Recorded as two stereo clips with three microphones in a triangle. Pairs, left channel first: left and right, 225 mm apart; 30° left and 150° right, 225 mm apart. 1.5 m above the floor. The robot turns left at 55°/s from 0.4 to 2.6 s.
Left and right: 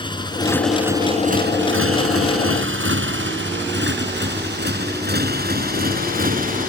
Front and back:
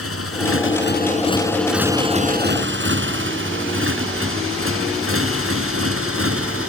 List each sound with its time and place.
0.0 s a motorcycle: 20° left; by 6.7 s 145° right